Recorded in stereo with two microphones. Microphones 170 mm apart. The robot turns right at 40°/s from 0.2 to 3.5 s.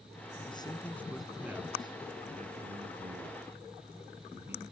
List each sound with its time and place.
0.5 s a man speaking: 30° left (ahead or behind); by 4.6 s 75° right (ahead or behind)